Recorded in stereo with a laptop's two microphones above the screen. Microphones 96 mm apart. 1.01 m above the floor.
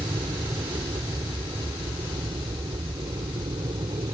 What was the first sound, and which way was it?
An aircraft, 70° right (ahead or behind).